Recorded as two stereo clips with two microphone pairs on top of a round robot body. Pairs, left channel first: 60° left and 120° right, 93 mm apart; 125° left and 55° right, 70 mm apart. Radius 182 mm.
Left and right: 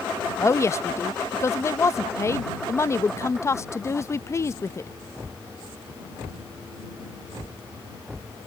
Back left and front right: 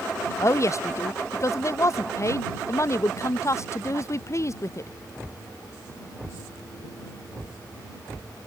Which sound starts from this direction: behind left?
A woman speaking, at 0.4 s.